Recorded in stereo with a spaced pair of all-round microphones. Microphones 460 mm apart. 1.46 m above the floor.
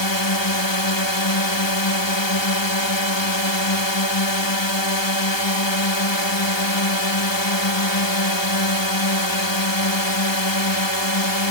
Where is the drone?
65° left (ahead or behind).